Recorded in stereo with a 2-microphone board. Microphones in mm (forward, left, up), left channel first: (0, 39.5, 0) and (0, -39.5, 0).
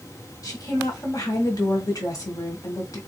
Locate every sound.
0.4 s a woman speaking: 45° left (ahead or behind), 1.3 m